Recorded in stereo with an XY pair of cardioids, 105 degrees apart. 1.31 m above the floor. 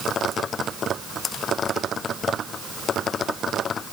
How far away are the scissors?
No scissors in this recording.